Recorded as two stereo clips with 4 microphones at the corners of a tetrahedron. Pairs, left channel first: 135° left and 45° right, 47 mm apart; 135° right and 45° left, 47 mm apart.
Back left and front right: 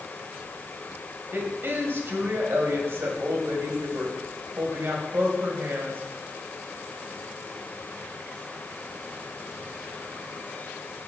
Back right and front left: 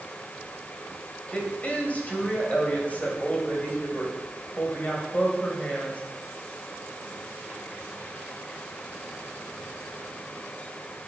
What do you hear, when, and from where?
1.3 s a woman speaking: 75° right, 3 m